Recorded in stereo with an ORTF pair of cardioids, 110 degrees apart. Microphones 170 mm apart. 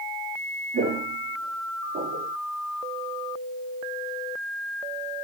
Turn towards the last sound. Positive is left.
turn(degrees=-70)